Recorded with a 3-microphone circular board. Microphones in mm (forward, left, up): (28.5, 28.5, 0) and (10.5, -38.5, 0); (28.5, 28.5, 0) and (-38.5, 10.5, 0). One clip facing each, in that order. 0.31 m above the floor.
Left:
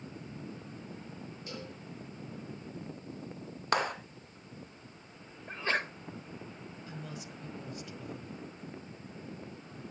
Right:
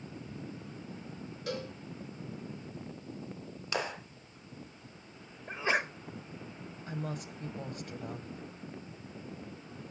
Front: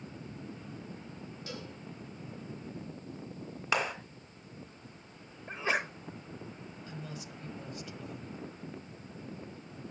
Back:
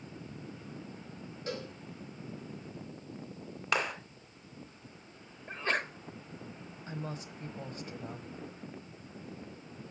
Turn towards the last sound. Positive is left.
turn(degrees=-120)